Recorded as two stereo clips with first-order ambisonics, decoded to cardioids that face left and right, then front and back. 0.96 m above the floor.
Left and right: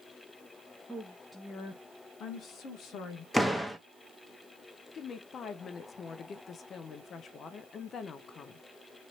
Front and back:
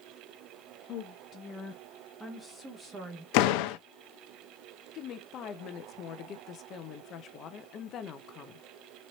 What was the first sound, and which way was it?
A woman speaking, 5° left.